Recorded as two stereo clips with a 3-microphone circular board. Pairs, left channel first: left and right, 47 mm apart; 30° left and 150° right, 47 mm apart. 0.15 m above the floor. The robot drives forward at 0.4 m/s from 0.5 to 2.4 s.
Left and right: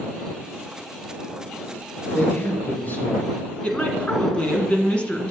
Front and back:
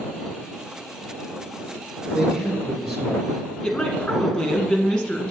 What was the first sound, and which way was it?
A man speaking, 120° left.